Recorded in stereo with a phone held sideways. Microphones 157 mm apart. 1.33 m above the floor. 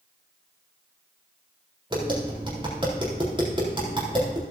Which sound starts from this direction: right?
Tapping, at 1.9 s.